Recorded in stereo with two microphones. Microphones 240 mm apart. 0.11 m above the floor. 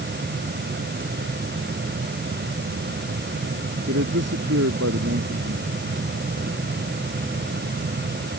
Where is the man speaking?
75° right (ahead or behind).